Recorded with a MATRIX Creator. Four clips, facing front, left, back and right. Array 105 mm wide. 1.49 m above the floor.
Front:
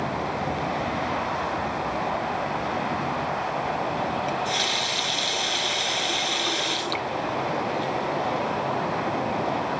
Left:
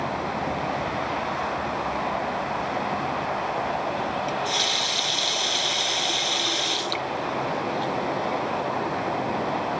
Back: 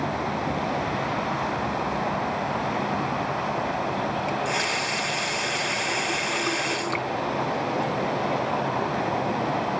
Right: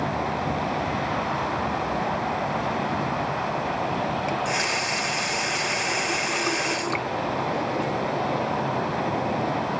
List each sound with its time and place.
4.3 s a running tap: 120° right, 0.6 m